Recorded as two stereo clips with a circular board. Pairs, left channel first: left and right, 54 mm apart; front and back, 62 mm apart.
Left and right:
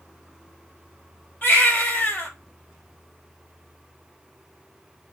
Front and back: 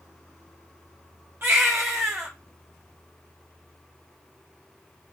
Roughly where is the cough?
No cough in this recording.